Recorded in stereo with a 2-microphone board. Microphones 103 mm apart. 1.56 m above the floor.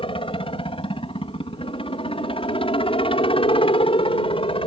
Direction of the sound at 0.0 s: 60° left (ahead or behind).